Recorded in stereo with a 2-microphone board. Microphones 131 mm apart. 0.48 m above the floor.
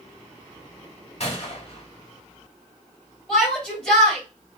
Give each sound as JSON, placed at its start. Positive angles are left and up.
{"t": 1.2, "sound": "a gunshot", "side_deg": 50, "distance_m": 2.0}
{"t": 3.3, "sound": "a shout", "side_deg": 5, "distance_m": 2.5}